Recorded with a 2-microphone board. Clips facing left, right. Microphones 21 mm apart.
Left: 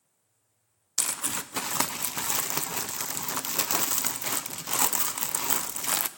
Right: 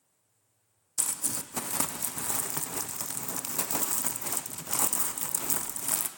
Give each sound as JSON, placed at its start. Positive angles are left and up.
{"t": 1.0, "sound": "crumpling", "side_deg": 50, "distance_m": 0.5}